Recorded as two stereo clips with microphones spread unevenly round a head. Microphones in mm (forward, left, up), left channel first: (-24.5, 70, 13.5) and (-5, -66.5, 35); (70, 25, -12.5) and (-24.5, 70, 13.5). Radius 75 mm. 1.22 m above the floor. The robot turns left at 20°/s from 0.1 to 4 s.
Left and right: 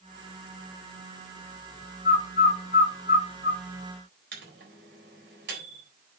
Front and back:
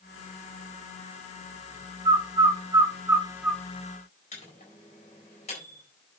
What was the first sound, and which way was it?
A bird, 110° left.